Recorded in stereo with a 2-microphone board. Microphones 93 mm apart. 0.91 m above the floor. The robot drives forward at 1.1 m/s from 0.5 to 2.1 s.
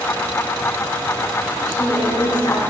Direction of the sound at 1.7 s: 50° left (ahead or behind).